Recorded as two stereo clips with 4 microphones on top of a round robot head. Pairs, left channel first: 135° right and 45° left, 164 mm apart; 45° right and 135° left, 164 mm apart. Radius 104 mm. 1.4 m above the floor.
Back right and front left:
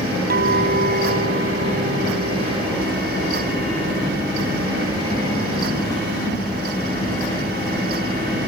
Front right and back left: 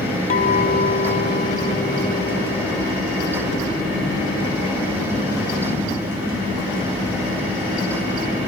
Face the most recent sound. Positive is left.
turn(degrees=5)